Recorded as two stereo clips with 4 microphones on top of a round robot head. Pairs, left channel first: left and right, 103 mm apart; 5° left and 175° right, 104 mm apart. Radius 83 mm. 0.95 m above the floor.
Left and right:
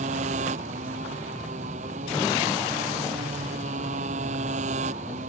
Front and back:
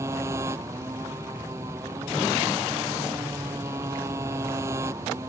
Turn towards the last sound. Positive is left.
turn(degrees=-105)